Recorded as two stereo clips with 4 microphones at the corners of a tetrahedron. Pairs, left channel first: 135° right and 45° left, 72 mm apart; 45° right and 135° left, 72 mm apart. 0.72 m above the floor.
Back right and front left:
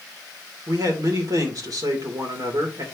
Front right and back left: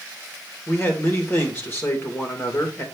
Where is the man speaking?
10° left, 2.5 m.